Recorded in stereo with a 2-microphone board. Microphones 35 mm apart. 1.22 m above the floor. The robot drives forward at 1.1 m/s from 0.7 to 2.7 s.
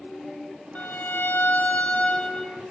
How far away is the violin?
About 0.8 m.